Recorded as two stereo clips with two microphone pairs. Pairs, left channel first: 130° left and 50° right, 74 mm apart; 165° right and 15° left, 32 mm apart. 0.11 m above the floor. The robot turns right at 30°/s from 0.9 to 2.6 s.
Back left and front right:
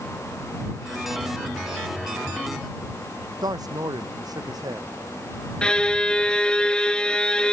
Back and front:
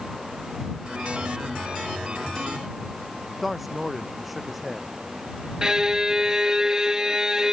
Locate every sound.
3.4 s a man speaking: 75° right
5.6 s a violin: 60° left